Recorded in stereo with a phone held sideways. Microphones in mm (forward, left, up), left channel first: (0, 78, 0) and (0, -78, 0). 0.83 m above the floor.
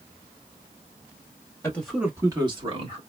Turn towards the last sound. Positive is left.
turn(degrees=-40)  # may be behind; listen again after turning